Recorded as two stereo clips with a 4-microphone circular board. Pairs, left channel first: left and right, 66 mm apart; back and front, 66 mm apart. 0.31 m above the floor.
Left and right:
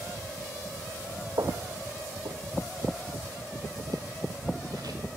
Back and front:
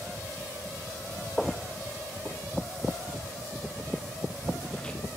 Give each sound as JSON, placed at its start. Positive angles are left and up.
{"t": 1.4, "sound": "footsteps", "azimuth_deg": -95, "distance_m": 1.4}